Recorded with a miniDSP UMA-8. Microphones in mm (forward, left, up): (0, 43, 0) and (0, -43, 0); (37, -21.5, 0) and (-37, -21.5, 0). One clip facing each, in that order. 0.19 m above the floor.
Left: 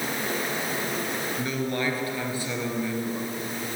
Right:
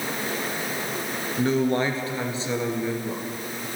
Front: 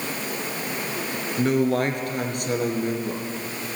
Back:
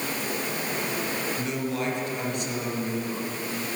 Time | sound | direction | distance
1.4 | a man speaking | 35° right | 3 m